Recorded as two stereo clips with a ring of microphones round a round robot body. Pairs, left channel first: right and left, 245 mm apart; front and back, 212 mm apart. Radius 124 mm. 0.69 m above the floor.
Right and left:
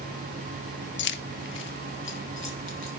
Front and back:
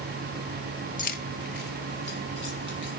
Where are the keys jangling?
50° right, 0.6 m; by 2.9 s 45° right, 2.5 m.